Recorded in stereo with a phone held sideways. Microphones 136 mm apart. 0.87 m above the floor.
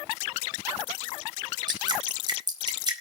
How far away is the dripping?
About 4.5 m.